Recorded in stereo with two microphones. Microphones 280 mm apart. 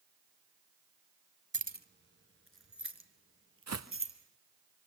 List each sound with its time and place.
1.5 s keys jangling: 25° right (ahead or behind), 0.9 m; by 4.1 s 55° right (ahead or behind), 3.5 m
3.7 s footsteps: 80° right, 1.2 m